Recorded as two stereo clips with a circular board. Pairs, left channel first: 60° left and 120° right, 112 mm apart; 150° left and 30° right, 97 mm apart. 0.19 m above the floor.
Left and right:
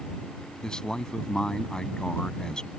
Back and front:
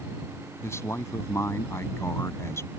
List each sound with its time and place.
0.6 s a man speaking: 135° left